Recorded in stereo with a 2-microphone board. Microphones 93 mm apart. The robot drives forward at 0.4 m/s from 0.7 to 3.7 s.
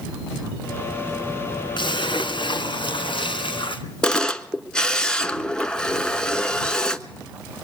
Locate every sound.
1.8 s a splash: 65° left (ahead or behind), 2.5 m; by 3.8 s 75° left (ahead or behind), 2 m
4.0 s a camera shutter: 10° left (ahead or behind), 1.0 m